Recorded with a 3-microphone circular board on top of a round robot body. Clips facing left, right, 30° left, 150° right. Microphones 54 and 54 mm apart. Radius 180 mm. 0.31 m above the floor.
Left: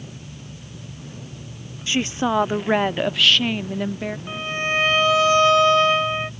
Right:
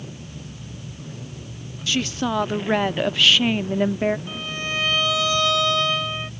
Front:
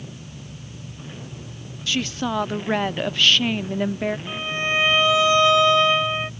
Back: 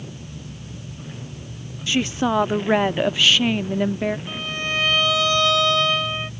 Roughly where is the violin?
Left.